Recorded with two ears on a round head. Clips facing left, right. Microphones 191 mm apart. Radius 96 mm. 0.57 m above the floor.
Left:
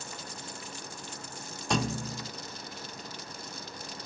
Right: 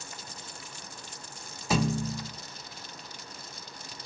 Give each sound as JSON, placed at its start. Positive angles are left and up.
{"t": 1.7, "sound": "a thud", "side_deg": -5, "distance_m": 0.5}